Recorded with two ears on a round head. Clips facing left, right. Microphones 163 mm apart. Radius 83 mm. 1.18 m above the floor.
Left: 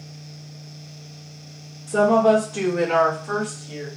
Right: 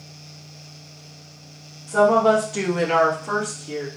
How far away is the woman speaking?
About 0.6 m.